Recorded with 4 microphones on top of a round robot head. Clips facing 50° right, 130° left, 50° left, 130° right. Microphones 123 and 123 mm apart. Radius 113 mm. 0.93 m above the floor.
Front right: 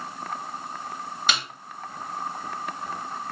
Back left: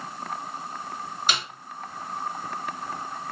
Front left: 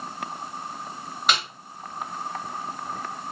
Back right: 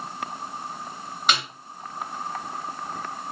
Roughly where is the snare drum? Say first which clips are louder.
Front right 1 dB, even; ahead right.